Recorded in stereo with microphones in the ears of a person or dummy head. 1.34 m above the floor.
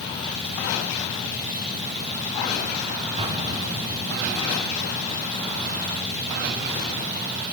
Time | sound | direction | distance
3.2 | an explosion | 30° right (ahead or behind) | 1.0 m